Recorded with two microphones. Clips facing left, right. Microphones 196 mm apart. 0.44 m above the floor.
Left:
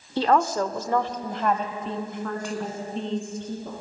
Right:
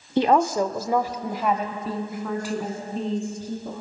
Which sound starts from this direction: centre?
A woman speaking, at 0.2 s.